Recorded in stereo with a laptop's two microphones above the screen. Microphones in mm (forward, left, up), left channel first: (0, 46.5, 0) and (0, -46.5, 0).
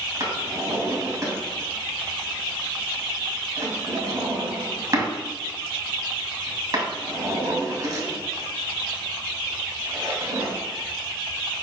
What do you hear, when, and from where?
0.2 s a drawer: 35° right (ahead or behind), 2.5 m